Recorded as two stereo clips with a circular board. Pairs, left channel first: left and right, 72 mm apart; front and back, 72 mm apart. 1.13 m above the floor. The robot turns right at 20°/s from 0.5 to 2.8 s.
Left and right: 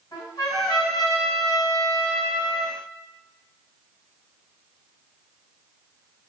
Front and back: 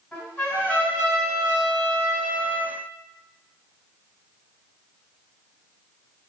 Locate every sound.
0.1 s a trumpet: 70° left, 1.8 m; by 2.7 s 115° left, 1.8 m